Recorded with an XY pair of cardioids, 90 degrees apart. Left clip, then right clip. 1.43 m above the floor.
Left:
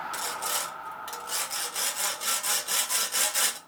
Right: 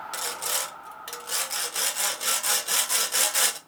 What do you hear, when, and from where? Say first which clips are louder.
0.1 s sawing: right 3 dB; 35° right, 1.1 m